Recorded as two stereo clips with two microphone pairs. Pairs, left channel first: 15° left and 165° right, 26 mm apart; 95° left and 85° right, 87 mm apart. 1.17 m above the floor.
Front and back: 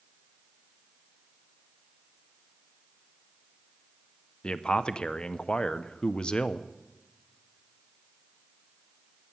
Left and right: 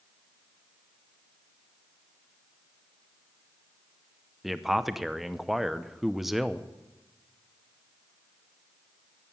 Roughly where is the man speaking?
Ahead.